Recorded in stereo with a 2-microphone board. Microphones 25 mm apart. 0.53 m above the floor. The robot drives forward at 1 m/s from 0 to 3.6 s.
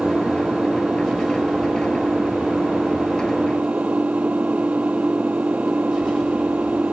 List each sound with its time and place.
0.0 s an engine running: 55° right (ahead or behind); by 6.9 s 65° right (ahead or behind)